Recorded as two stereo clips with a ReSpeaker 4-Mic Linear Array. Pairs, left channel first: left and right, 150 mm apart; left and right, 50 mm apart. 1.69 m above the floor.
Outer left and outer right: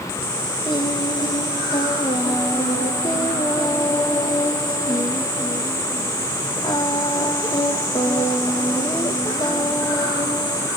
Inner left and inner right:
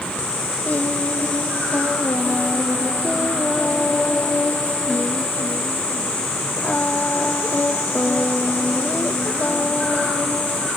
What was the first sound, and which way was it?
Singing, 30° left (ahead or behind).